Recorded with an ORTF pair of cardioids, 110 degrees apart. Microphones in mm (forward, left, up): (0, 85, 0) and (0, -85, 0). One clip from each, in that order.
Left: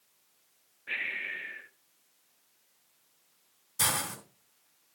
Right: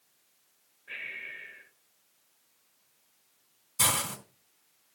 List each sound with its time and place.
0.9 s breathing: 70° left, 1.4 m
3.8 s a hiss: 5° right, 4 m